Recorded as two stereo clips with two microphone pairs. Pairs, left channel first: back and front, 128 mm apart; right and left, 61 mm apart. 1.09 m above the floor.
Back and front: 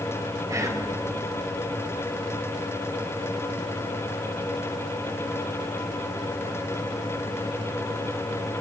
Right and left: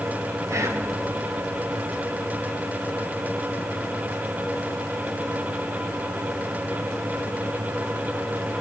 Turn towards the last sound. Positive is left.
turn(degrees=60)